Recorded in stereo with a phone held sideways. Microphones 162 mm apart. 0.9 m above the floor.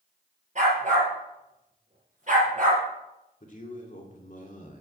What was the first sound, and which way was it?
A dog barking, 50° right (ahead or behind).